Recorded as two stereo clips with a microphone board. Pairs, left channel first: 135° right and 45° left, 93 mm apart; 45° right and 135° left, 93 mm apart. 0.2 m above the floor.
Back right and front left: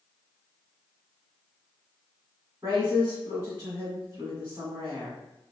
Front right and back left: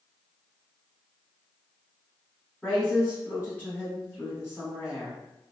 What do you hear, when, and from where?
2.6 s a woman speaking: 10° left, 1.5 m